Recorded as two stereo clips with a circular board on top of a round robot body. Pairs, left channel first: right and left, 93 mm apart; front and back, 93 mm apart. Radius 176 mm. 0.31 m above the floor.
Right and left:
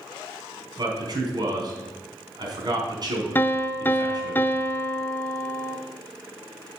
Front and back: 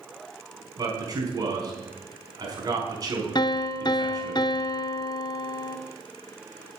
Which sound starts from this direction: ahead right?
A piano, at 3.4 s.